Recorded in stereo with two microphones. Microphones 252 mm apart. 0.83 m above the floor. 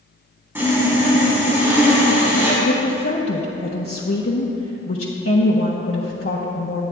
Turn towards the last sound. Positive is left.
turn(degrees=60)  # may be behind; listen again after turning